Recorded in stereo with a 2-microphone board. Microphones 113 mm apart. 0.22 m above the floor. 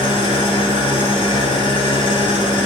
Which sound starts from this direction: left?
An engine running, at 0.0 s.